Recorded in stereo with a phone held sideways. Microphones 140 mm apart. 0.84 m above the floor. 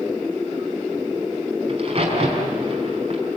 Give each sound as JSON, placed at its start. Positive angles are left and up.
{"t": 1.7, "sound": "a crack", "side_deg": -45, "distance_m": 5.0}